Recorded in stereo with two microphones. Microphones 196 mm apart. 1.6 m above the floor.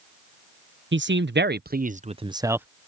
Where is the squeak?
I don't hear a squeak.